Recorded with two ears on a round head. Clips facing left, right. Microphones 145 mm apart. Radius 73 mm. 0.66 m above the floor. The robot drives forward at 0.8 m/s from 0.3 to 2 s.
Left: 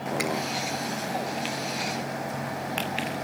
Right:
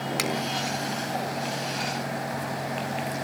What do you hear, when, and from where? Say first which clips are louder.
0.2 s a finger snap: left 1 dB; 85° right, 5.5 m